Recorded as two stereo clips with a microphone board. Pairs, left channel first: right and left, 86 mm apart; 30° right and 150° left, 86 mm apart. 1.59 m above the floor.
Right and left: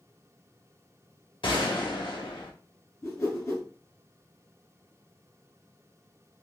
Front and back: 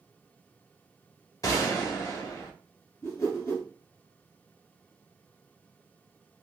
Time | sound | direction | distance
1.4 | a gunshot | 75° right | 0.8 m
3.0 | a whoosh | 65° right | 1.4 m